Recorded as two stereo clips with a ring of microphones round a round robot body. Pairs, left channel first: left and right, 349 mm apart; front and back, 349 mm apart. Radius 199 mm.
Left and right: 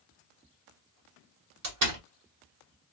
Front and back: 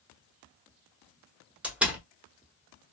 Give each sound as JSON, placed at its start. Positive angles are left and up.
{"t": 1.6, "sound": "a door slam", "azimuth_deg": -95, "distance_m": 1.3}